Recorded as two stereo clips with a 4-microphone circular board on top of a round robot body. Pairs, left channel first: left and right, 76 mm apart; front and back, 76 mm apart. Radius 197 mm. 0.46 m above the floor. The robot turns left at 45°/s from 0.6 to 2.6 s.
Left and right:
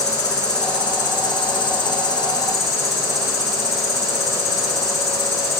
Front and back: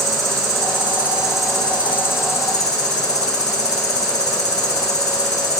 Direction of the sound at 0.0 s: 130° left.